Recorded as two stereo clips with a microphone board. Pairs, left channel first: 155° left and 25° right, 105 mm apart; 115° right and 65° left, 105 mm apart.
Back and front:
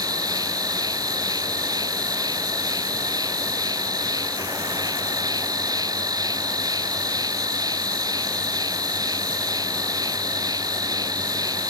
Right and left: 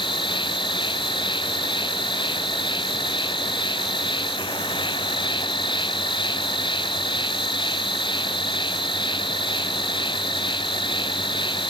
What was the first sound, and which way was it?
An insect, 75° right.